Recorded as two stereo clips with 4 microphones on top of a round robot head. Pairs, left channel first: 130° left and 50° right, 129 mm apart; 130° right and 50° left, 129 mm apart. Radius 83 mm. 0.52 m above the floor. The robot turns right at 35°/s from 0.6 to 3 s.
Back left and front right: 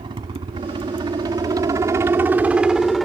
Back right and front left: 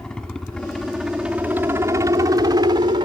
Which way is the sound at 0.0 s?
45° right.